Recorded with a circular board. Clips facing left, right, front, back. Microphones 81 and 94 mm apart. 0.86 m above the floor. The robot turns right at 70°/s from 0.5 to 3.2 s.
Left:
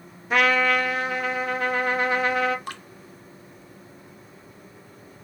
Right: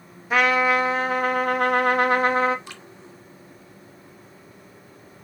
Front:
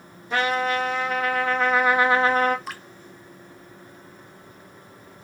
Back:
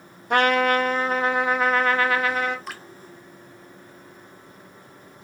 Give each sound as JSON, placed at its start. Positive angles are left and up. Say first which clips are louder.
{"t": 0.3, "sound": "a trumpet", "louder": "right 1 dB, back 4 dB", "azimuth_deg": -175, "distance_m": 0.8}
{"t": 2.7, "sound": "dripping", "louder": "left 6 dB, front 1 dB", "azimuth_deg": 85, "distance_m": 0.6}